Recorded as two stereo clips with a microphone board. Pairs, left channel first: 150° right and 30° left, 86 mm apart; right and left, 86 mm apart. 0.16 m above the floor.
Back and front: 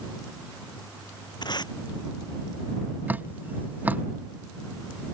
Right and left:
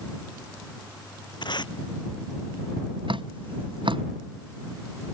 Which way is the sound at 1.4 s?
115° right.